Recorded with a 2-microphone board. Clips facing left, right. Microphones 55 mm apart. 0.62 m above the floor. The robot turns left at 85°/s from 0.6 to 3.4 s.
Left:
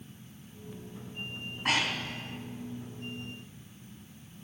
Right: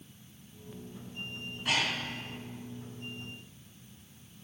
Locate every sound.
1.4 s breathing: 40° left (ahead or behind), 3 m; by 2.2 s 70° left (ahead or behind), 3 m